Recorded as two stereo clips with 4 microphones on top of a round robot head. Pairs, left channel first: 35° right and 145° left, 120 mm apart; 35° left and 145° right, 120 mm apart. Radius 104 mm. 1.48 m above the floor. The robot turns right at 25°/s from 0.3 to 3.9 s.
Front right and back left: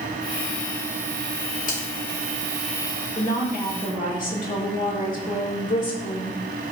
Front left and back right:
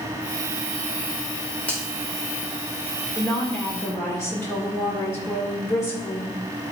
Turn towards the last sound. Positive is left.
turn(degrees=-30)